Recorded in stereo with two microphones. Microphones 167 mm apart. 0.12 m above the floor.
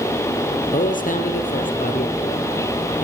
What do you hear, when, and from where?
0.7 s a man speaking: 55° left (ahead or behind), 3.5 m